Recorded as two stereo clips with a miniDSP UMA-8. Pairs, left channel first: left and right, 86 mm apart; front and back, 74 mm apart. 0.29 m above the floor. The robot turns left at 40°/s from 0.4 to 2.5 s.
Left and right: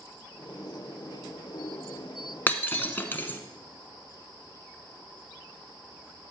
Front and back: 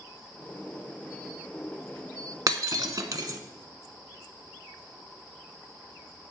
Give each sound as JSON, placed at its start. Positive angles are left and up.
{"t": 2.5, "sound": "breaking glass", "azimuth_deg": 155, "distance_m": 1.1}